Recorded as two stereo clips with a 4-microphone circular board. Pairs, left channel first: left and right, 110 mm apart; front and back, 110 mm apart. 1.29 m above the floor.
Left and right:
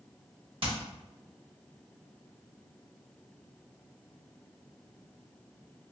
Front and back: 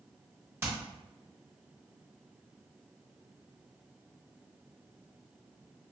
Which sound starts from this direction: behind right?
Hammering, at 0.6 s.